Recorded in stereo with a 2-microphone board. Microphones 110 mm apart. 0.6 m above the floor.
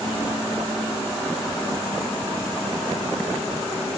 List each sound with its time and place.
Only background noise.